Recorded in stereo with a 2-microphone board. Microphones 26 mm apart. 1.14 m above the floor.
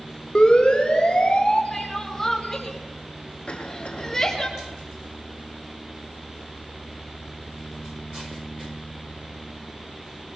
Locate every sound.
0.3 s a siren: 40° left (ahead or behind), 4 m; by 1.6 s 45° left (ahead or behind), 5.5 m
1.7 s crying: 15° left (ahead or behind), 5.5 m
3.5 s a cough: 45° left (ahead or behind), 4 m